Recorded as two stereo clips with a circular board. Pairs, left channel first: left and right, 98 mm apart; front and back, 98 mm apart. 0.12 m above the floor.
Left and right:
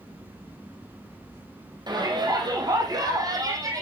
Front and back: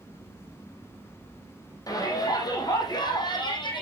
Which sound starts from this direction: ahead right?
A shout, at 1.9 s.